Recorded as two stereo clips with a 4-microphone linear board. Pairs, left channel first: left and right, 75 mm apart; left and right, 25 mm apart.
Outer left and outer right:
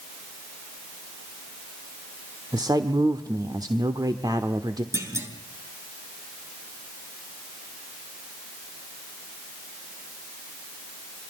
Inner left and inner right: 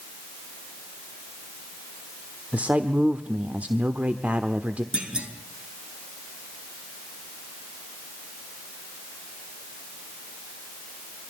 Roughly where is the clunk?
Right.